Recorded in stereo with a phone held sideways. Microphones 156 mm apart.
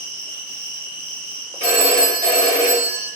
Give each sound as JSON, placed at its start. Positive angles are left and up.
{"t": 0.0, "sound": "an insect", "side_deg": 35, "distance_m": 1.5}
{"t": 1.6, "sound": "a phone ringing", "side_deg": 45, "distance_m": 1.2}